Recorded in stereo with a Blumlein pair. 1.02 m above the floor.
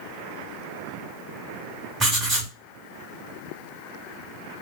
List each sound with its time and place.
2.0 s writing: 20° right, 1.9 m